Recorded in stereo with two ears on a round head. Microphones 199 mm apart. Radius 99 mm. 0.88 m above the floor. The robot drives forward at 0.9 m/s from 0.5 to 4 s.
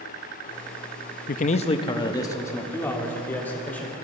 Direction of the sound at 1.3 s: 40° left (ahead or behind).